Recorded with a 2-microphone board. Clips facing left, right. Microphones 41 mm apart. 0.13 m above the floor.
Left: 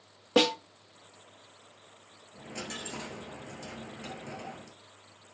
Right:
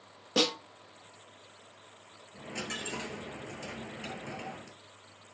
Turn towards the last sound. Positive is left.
turn(degrees=-40)  # may be behind; listen again after turning